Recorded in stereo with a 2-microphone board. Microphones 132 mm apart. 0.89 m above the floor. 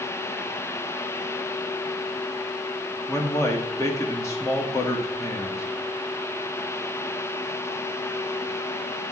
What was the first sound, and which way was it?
A man speaking, 25° left (ahead or behind).